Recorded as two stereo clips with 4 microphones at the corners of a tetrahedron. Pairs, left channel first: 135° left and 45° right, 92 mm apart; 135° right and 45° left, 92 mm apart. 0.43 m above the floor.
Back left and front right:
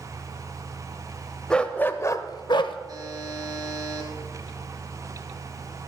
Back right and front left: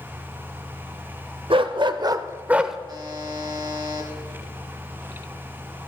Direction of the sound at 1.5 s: 55° left.